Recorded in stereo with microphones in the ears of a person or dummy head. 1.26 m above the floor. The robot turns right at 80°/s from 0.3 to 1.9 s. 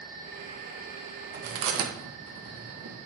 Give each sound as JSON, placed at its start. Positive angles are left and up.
{"t": 1.3, "sound": "chewing", "side_deg": -45, "distance_m": 1.3}